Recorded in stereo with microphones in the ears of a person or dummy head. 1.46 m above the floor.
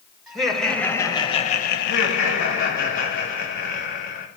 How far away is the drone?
I don't hear a drone.